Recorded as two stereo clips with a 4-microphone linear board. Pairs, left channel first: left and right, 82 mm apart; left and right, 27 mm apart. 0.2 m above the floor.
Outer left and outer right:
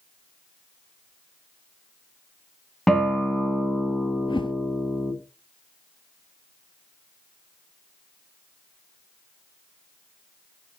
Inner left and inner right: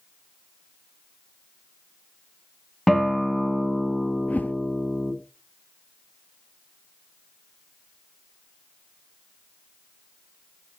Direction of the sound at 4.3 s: 90° left.